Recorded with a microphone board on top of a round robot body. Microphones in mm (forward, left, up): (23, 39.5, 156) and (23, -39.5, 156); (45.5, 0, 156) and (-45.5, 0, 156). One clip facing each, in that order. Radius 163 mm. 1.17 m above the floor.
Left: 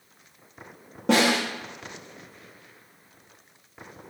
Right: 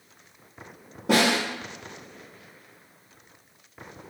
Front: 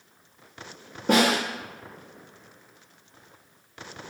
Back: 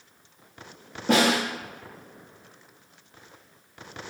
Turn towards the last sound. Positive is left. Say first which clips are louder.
# left 1 dB, even
turn(degrees=85)